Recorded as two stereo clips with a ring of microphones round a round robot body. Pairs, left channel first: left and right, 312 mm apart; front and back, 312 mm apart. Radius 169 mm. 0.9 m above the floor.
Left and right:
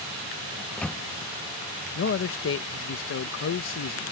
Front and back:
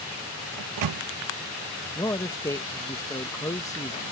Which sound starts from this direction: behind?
A microwave, at 0.6 s.